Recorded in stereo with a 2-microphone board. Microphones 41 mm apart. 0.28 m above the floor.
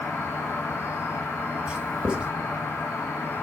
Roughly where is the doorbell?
I don't hear a doorbell.